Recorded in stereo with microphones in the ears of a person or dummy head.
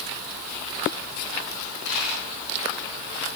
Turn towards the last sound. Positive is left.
turn(degrees=65)  # may be behind; listen again after turning